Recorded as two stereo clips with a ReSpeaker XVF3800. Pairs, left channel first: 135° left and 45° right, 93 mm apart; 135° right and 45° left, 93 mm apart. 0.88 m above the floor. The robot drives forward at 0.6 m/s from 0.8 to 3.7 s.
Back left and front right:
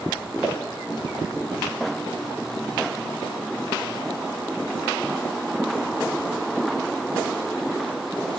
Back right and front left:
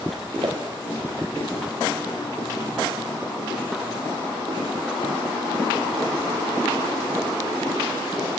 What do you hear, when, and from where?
0.4 s footsteps: 25° left, 1.8 m; by 1.3 s 35° left, 1.6 m